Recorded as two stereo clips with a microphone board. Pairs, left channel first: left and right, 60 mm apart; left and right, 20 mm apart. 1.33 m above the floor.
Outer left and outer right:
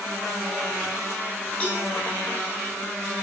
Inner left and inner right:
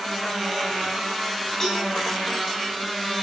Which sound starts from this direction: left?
A cowbell, at 1.6 s.